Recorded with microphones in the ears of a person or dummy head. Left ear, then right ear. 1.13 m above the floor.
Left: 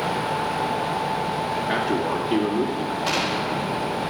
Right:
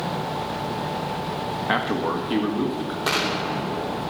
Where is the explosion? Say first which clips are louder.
Right 2 dB; 50° right (ahead or behind), 2.5 m.